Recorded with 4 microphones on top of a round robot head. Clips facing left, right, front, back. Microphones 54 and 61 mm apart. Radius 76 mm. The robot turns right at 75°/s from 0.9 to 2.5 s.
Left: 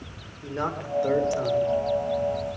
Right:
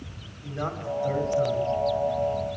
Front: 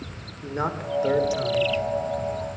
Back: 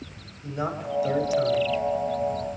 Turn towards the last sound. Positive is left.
turn(degrees=155)